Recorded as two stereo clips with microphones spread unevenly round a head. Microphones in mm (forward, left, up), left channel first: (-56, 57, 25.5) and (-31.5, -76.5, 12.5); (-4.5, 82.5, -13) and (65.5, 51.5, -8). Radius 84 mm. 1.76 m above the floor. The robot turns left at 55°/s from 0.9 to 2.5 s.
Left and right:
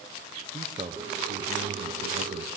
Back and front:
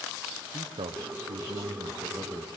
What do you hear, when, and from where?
0.5 s a man speaking: 20° right, 1.2 m; by 2.5 s 105° right, 1.2 m